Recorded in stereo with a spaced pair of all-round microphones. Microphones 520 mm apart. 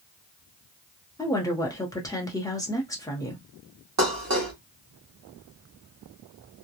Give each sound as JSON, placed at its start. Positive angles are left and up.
{"t": 1.2, "sound": "a woman speaking", "side_deg": 5, "distance_m": 0.8}
{"t": 4.0, "sound": "dishes clattering", "side_deg": -30, "distance_m": 0.8}